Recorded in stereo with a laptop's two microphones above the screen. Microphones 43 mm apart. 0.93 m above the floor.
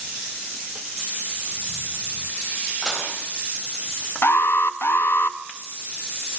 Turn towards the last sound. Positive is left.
turn(degrees=60)  # may be behind; listen again after turning